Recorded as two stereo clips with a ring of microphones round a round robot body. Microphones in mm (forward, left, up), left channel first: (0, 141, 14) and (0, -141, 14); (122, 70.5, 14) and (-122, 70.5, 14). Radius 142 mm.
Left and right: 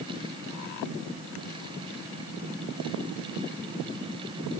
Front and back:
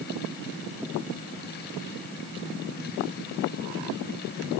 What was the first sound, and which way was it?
Only background noise.